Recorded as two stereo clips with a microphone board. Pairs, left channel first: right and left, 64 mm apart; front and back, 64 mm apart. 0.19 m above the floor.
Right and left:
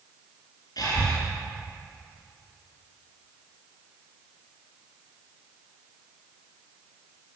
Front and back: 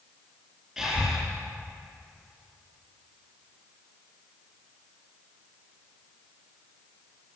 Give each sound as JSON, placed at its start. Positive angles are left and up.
{"t": 0.8, "sound": "breathing", "azimuth_deg": -95, "distance_m": 4.0}